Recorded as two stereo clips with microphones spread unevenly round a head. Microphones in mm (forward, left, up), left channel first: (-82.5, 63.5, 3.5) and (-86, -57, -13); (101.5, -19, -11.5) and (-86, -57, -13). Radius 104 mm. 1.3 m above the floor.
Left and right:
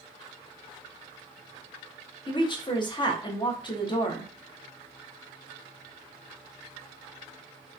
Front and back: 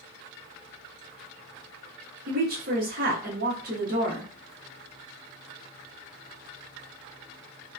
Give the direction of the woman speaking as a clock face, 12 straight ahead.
7 o'clock.